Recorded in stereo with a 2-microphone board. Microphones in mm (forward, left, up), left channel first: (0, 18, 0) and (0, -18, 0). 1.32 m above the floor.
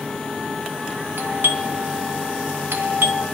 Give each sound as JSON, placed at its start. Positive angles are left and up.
{"t": 1.2, "sound": "a doorbell", "side_deg": -75, "distance_m": 1.1}